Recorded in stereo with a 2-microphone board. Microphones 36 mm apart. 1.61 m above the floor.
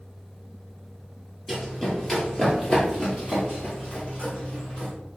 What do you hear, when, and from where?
1.5 s running footsteps: 5° left (ahead or behind), 1.9 m; by 4.9 s 45° left (ahead or behind), 2.5 m